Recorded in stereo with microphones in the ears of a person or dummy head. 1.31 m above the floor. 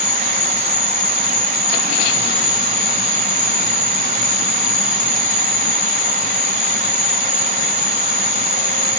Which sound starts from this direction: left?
An insect, at 0.0 s.